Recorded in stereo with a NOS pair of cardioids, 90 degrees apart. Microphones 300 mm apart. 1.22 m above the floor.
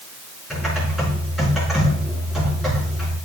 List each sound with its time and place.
0.5 s typing on a keyboard: straight ahead, 5 m